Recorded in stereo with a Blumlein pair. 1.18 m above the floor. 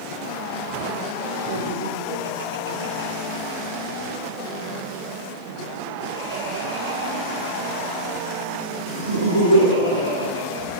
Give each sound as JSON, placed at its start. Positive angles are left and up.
{"t": 1.4, "sound": "laughter", "azimuth_deg": -55, "distance_m": 2.5}